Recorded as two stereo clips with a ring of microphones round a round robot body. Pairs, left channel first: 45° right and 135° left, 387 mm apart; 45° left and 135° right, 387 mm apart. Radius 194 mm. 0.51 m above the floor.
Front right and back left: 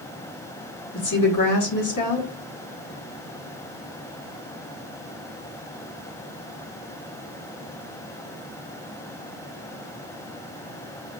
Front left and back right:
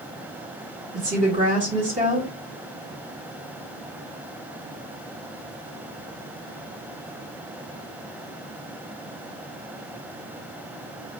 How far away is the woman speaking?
About 1.3 m.